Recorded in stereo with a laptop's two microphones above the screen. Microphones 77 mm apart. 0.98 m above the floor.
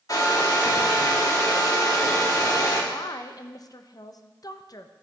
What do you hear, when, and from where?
0.1 s a hair dryer: 50° left (ahead or behind), 1.7 m
2.9 s a woman speaking: 50° left (ahead or behind), 0.6 m